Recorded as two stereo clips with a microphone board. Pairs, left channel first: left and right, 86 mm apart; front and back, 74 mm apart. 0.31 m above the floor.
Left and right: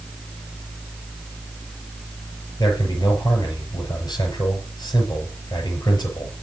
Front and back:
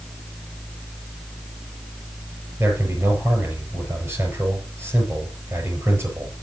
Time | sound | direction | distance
2.6 | a man speaking | 130° left | 6.5 m